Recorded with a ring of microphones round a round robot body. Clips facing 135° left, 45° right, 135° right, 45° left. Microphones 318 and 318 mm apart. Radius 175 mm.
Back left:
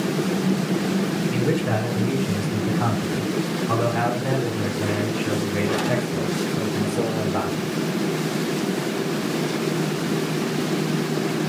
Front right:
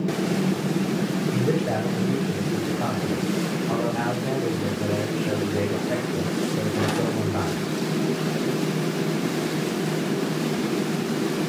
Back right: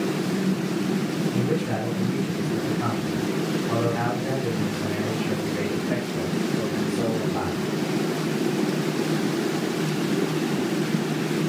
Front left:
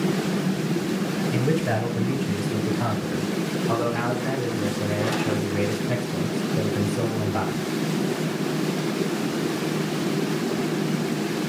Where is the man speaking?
70° left, 9 m; by 7.7 s 95° left, 9 m.